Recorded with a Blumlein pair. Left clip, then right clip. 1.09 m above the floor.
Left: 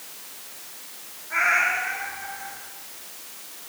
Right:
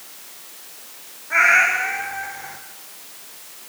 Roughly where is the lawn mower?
I don't hear a lawn mower.